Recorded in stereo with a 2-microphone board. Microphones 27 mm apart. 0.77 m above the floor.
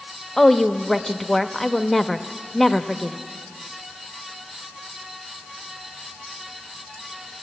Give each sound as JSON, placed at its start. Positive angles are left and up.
{"t": 0.4, "sound": "a woman speaking", "side_deg": 5, "distance_m": 0.8}